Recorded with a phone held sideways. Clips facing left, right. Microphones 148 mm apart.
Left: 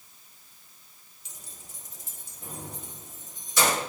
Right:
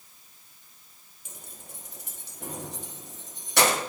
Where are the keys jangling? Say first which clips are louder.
Right 4 dB; 50° right (ahead or behind), 1.3 m; by 3.8 s 65° right (ahead or behind), 1.6 m.